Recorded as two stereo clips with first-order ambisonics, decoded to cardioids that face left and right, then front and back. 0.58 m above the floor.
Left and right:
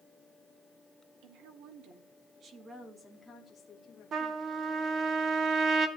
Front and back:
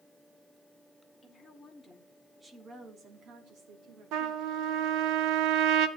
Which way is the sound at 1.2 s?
75° right.